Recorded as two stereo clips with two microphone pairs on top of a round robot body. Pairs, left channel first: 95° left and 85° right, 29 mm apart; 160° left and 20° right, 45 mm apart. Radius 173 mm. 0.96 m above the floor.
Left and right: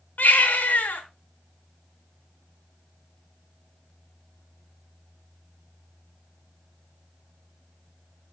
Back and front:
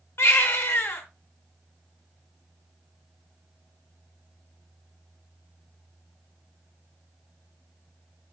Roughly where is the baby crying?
Behind left.